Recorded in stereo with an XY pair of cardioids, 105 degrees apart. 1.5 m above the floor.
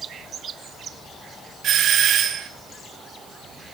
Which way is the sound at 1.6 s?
70° right.